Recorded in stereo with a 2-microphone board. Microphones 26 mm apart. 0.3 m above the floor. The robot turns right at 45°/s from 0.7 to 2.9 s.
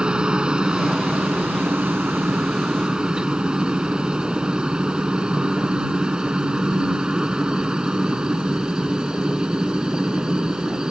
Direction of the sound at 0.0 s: 35° right (ahead or behind).